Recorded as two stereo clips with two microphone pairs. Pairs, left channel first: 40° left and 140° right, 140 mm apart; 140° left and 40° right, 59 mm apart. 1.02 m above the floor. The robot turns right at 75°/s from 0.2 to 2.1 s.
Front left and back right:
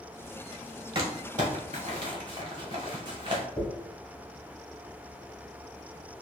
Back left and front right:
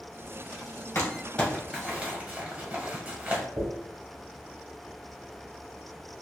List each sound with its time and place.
0.9 s crumpling: straight behind, 1.1 m; by 3.5 s 95° right, 1.1 m
3.6 s a dropped coin: 45° right, 2.0 m